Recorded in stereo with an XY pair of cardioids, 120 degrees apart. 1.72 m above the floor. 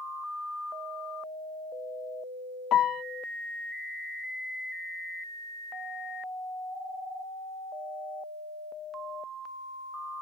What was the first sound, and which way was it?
A piano, 60° left.